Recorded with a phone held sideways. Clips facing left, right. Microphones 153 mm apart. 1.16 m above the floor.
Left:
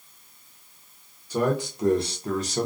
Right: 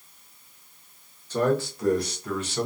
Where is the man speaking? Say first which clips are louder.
Right 1 dB; 10° left (ahead or behind), 1.0 m; by 2.7 s 40° left (ahead or behind), 0.7 m.